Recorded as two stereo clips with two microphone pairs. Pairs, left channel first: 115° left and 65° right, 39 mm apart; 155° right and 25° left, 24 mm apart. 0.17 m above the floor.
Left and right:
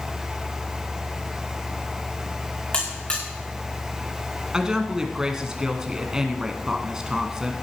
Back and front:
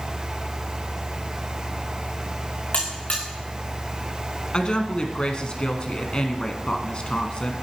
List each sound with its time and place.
2.7 s a buzzer: 170° left, 4.5 m
4.5 s a woman speaking: 135° right, 1.5 m